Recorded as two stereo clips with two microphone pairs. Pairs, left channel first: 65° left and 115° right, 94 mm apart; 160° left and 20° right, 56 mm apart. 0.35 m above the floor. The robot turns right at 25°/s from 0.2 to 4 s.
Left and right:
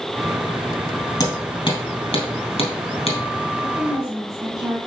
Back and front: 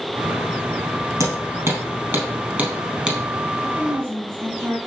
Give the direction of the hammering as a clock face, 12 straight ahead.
12 o'clock.